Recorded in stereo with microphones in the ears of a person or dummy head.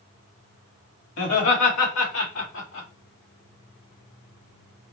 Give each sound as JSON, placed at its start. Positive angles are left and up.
{"t": 1.2, "sound": "laughter", "side_deg": 90, "distance_m": 2.0}